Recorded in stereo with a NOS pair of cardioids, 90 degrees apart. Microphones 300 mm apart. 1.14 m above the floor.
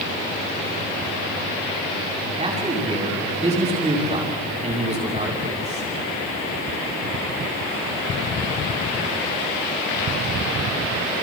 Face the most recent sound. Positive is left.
turn(degrees=-20)